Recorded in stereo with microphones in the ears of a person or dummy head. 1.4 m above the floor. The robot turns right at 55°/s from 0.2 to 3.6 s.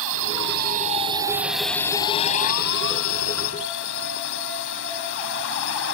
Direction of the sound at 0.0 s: 75° right.